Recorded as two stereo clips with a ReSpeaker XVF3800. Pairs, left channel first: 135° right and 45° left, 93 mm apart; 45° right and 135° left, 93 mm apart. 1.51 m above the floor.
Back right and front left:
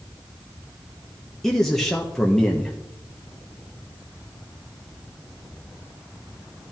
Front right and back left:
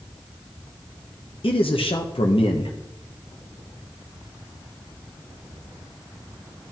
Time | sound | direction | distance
1.4 | a man speaking | 50° right | 1.2 m